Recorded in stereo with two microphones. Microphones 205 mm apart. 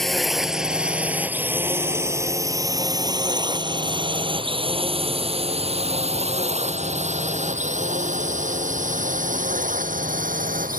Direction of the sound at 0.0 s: Centre (ahead or behind).